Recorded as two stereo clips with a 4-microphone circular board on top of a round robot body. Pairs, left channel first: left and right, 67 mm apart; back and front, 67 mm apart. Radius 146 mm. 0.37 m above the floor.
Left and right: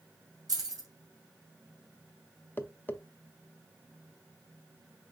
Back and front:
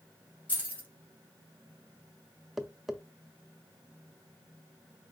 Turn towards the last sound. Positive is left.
turn(degrees=85)